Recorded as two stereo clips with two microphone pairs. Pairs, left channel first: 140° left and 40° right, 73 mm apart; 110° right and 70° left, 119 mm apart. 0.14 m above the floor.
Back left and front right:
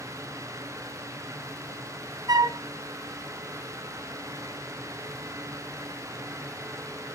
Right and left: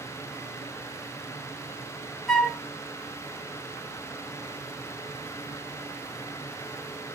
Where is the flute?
20° right, 0.7 m.